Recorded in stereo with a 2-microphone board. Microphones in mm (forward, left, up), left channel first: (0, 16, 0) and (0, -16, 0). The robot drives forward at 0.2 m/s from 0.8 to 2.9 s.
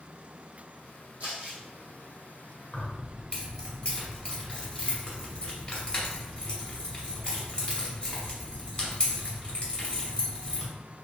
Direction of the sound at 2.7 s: 30° left (ahead or behind).